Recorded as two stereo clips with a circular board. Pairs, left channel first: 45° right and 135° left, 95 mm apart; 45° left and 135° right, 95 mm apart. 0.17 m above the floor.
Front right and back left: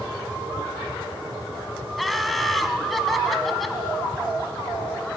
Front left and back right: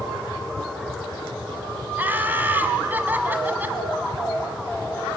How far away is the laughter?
About 1.0 m.